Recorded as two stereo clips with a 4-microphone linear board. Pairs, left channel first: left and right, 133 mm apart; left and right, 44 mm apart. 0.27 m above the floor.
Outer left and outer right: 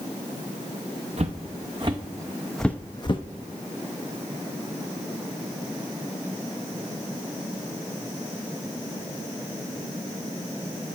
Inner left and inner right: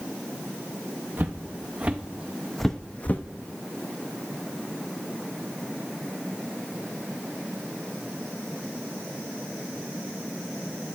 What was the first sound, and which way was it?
Footsteps, 50° right (ahead or behind).